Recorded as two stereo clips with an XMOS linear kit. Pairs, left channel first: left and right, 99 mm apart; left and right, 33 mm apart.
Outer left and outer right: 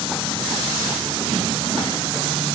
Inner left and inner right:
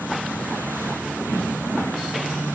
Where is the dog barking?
No dog barking in this recording.